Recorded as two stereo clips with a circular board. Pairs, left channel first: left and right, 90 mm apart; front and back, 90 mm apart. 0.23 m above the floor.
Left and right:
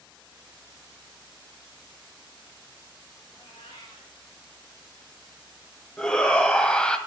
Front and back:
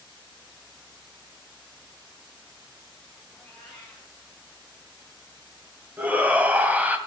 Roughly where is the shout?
Behind left.